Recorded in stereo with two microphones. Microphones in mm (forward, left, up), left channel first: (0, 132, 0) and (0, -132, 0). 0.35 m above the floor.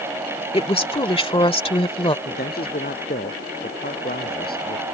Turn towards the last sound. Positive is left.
turn(degrees=40)  # may be behind; listen again after turning